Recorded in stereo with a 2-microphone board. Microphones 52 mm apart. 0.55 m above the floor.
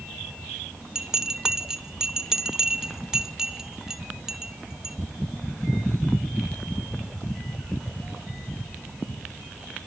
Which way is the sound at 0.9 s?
10° right (ahead or behind).